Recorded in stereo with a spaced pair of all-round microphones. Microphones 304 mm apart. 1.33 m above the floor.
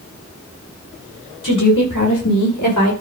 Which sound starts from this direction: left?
A woman speaking, at 1.4 s.